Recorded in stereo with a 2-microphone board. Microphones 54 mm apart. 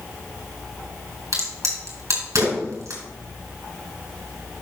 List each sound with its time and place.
1.3 s a crack: 80° right, 3.5 m